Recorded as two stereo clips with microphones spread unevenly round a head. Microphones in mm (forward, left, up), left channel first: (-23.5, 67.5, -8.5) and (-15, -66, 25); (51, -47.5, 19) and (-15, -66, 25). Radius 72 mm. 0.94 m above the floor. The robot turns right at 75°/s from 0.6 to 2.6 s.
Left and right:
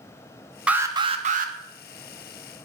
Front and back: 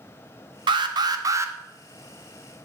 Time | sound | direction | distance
0.7 | an alarm | 170° right | 1.2 m